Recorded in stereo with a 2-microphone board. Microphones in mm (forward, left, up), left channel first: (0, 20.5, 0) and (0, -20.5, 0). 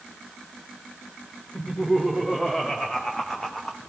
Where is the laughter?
5° right (ahead or behind), 3 m; by 3.8 s 10° left (ahead or behind), 0.9 m.